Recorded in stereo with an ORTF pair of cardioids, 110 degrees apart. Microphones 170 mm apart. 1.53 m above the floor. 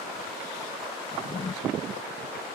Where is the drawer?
30° left.